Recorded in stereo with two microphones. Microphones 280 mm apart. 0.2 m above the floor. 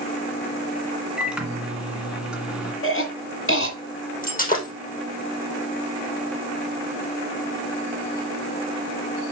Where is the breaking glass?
30° left (ahead or behind), 3.5 m.